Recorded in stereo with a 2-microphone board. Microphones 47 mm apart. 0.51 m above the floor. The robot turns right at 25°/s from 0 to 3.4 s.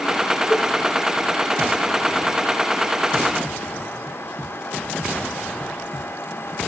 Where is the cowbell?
35° right (ahead or behind), 5.5 m; by 0.7 s 40° right (ahead or behind), 5.5 m.